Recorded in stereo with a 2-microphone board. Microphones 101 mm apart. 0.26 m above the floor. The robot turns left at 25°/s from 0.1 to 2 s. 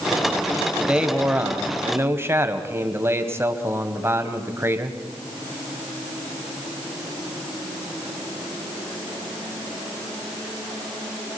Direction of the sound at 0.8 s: 15° right.